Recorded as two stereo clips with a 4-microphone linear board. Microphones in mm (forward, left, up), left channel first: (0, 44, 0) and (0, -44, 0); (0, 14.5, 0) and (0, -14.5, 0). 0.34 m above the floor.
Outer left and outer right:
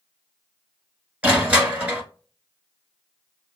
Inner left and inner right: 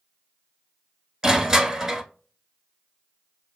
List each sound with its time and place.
1.2 s crushing: 15° right (ahead or behind), 1.0 m